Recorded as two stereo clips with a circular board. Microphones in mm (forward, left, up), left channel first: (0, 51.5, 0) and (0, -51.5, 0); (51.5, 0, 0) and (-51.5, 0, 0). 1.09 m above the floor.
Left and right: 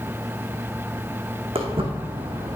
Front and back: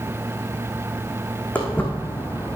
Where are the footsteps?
75° right, 3 m; by 2.6 s 70° right, 1.7 m.